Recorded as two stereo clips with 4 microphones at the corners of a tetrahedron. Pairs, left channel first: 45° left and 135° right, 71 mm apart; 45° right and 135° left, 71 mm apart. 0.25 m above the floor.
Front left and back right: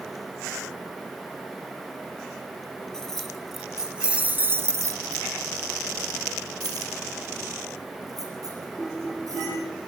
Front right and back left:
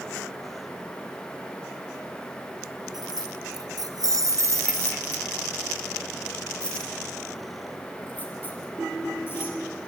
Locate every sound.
2.9 s keys jangling: 125° left, 3.5 m; by 9.6 s 100° right, 7.5 m